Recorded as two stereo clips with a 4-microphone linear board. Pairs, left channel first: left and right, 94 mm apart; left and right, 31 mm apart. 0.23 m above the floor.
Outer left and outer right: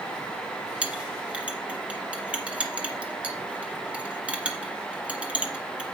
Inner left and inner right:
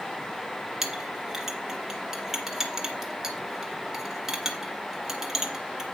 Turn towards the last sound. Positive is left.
turn(degrees=-10)  # may be behind; listen again after turning